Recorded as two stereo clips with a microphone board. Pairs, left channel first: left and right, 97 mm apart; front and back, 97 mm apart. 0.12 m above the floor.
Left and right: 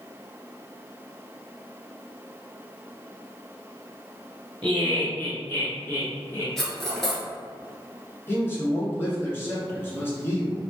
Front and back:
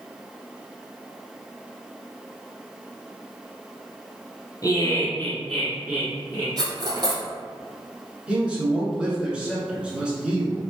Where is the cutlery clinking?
175° left, 1.3 m.